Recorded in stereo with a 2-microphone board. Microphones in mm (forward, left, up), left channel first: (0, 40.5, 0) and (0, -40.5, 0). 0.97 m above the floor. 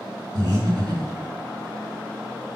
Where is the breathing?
60° right (ahead or behind), 1.7 m.